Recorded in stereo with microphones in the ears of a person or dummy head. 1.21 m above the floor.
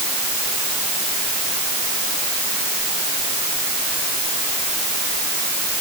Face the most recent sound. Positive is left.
No sound to turn to.